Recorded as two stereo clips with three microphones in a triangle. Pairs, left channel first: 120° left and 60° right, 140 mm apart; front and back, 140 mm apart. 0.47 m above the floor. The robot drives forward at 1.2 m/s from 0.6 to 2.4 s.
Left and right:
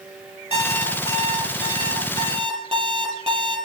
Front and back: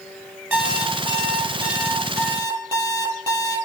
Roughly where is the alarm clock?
Right.